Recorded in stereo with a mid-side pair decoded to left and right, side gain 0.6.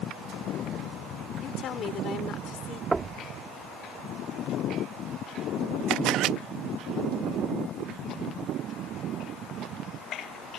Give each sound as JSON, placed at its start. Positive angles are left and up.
{"t": 1.4, "sound": "a woman speaking", "azimuth_deg": 50}
{"t": 2.9, "sound": "knocking", "azimuth_deg": -15}
{"t": 5.9, "sound": "a camera shutter", "azimuth_deg": -65}